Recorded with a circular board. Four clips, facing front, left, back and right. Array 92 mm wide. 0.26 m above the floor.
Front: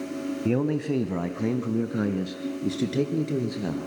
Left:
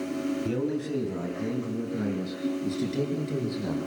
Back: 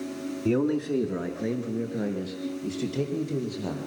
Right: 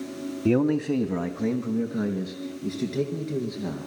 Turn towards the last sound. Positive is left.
turn(degrees=-5)